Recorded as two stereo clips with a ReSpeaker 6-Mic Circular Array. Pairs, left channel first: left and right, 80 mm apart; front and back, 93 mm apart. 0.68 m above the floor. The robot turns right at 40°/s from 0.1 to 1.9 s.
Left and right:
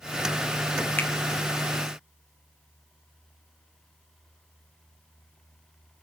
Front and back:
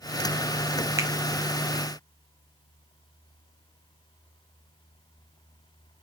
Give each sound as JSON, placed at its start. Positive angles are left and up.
{"t": 1.0, "sound": "a finger snap", "azimuth_deg": 140, "distance_m": 0.6}